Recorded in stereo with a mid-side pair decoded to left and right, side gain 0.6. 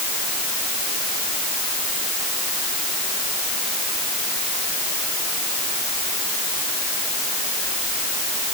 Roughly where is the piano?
I don't hear a piano.